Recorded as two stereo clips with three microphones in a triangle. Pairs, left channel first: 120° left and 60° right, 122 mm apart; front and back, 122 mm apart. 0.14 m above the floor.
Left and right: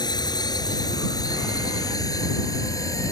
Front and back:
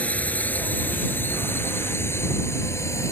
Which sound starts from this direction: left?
A drone, at 0.0 s.